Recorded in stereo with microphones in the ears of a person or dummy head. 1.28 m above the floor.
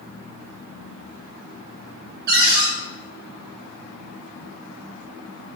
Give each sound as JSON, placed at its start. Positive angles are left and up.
{"t": 2.3, "sound": "a cupboard door", "side_deg": -55, "distance_m": 2.5}